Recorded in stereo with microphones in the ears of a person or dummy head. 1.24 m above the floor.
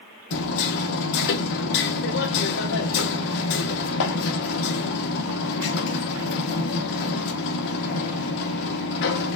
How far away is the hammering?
About 1.1 m.